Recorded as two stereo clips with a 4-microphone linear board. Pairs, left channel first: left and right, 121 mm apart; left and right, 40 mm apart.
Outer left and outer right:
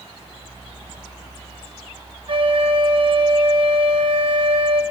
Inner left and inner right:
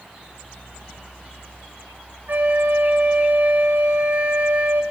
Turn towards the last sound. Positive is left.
turn(degrees=-50)  # may be behind; listen again after turning